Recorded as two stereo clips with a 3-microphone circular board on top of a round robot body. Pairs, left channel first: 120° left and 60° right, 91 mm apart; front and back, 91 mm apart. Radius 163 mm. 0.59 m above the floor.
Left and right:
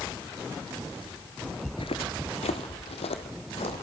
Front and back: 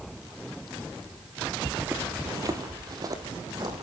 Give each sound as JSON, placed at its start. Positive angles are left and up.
{"t": 1.6, "sound": "footsteps", "azimuth_deg": 75, "distance_m": 0.6}